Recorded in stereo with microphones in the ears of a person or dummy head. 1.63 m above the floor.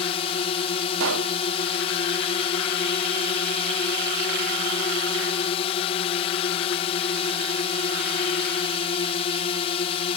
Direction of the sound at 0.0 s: 30° left (ahead or behind).